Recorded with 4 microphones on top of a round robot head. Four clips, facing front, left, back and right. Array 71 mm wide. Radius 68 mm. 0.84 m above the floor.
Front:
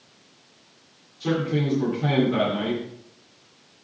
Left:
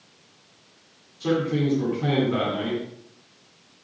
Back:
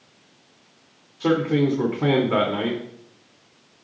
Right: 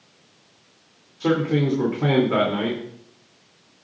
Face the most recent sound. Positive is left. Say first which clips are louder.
# right 3 dB, back 5 dB
turn(degrees=-145)